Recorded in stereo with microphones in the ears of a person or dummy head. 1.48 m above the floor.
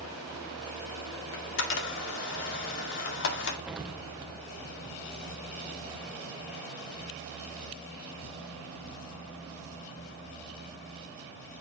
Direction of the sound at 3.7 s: 5° right (ahead or behind).